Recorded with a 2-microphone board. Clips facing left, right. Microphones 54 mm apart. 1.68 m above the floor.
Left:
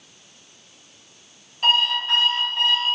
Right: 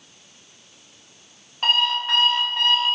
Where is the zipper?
No zipper in this recording.